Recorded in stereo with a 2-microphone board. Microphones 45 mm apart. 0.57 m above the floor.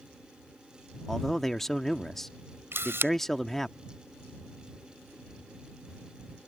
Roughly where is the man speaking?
Centre.